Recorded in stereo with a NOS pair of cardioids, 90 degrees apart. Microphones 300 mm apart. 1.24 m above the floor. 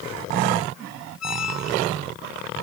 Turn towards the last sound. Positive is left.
turn(degrees=55)